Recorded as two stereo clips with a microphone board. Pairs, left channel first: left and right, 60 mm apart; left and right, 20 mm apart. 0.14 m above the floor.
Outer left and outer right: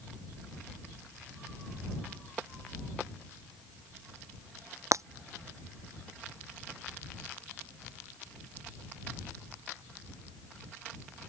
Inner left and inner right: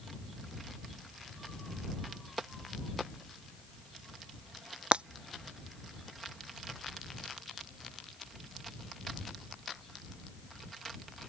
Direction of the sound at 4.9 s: 60° right (ahead or behind).